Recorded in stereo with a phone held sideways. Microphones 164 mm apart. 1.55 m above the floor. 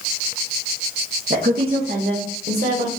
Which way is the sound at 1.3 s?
50° right (ahead or behind).